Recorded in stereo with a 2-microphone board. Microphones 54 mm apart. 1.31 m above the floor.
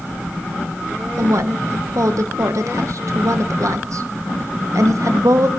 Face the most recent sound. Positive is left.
turn(degrees=-70)  # may be behind; listen again after turning